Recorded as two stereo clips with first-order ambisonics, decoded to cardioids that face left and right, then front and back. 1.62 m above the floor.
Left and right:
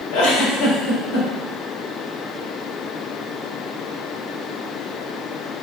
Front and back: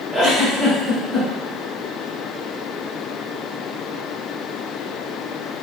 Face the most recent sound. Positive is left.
turn(degrees=105)